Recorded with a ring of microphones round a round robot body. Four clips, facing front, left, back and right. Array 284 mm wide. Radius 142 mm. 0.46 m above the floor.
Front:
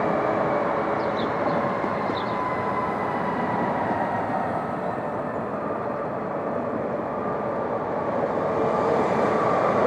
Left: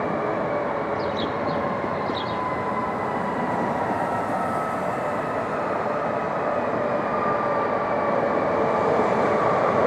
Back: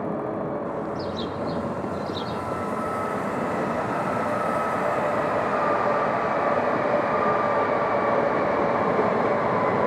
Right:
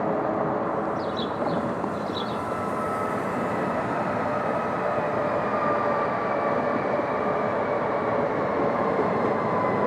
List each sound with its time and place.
0.9 s a bird: 160° left